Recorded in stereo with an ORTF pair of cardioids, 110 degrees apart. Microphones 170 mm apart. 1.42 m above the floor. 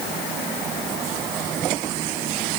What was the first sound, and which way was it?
Only background noise.